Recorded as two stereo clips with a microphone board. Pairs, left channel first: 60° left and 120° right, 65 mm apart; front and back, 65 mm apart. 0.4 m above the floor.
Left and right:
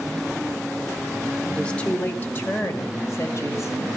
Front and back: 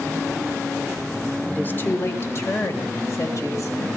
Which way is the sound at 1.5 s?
5° right.